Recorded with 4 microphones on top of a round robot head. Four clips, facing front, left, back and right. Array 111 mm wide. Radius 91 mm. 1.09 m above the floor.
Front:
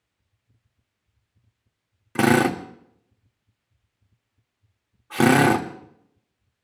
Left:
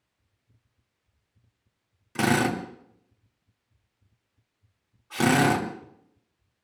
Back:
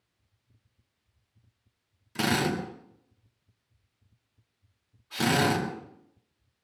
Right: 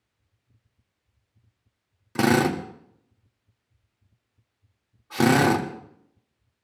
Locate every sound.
2.1 s a drill: 25° right, 1.8 m